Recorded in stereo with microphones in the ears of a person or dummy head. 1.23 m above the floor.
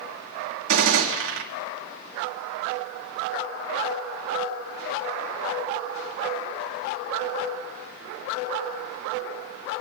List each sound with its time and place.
0.7 s a gunshot: 80° right, 2.5 m